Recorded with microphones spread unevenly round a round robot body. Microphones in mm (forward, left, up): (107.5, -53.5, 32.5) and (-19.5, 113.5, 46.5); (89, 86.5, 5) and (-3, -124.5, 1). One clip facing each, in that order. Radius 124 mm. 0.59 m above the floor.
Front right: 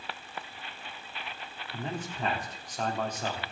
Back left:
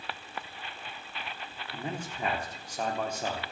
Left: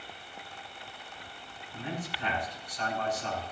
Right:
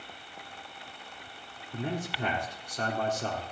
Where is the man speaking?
150° right, 1.6 m.